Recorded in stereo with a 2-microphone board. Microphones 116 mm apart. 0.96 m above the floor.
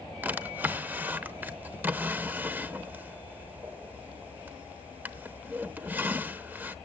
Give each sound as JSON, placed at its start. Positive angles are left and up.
{"t": 0.2, "sound": "a drawer", "side_deg": -15, "distance_m": 0.7}